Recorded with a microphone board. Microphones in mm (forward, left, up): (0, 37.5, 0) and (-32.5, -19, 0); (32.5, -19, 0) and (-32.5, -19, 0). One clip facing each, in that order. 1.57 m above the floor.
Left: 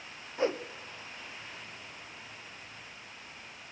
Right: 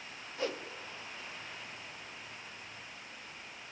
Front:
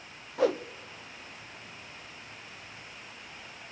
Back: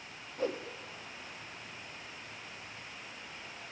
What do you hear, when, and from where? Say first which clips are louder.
0.4 s a whoosh: left 6 dB, front 8 dB; 5° right, 0.8 m